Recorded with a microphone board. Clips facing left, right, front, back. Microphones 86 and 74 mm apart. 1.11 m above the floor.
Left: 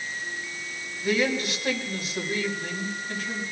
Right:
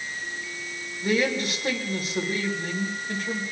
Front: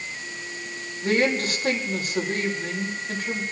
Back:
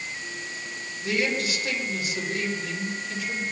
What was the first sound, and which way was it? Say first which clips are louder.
A man speaking: right 1 dB, front 4 dB; 40° right.